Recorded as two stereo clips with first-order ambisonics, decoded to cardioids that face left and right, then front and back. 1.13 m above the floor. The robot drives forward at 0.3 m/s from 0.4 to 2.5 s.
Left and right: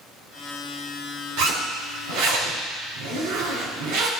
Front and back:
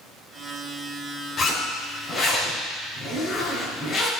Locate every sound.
1.4 s a zipper: 70° right, 3.5 m; by 4.1 s 75° right, 3.5 m